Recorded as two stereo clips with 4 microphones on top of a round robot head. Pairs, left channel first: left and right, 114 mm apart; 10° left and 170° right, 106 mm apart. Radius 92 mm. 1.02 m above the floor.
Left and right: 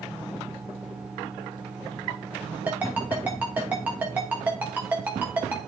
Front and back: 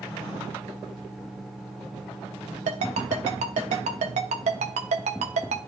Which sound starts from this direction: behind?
A ringtone, at 2.7 s.